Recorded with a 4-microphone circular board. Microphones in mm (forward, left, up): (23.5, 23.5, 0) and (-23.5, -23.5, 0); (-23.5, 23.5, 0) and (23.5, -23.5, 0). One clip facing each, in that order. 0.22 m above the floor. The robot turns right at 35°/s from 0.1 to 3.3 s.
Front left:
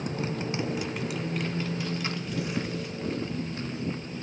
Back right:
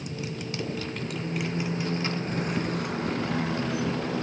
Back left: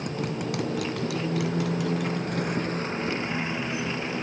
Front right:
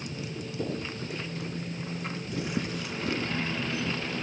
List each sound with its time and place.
0.0 s a motorcycle: 95° left; by 4.2 s 155° right